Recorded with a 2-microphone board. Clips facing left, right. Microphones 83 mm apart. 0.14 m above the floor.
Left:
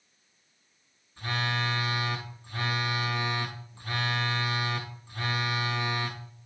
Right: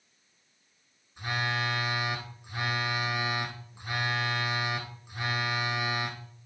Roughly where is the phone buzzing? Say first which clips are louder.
Even; centre.